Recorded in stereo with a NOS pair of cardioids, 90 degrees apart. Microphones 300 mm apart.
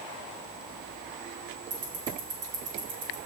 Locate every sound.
1.7 s ticking: 50° right, 4.5 m